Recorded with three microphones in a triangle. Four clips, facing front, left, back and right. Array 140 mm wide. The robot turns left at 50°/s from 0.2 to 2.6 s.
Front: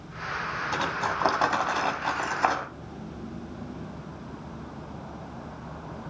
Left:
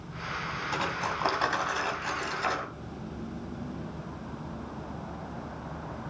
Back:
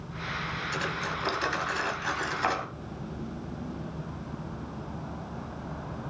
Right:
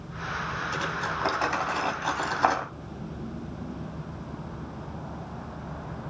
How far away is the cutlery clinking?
About 2.5 m.